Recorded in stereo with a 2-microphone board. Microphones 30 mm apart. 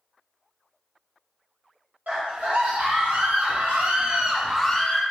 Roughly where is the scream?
Right.